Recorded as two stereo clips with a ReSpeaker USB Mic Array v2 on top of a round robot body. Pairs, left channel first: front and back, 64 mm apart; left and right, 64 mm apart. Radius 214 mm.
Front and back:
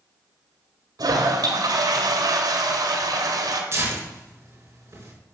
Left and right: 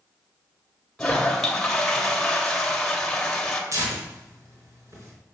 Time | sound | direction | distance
1.0 | a toilet flushing | 170° left | 1.8 m
3.7 | tearing paper | 130° right | 4.5 m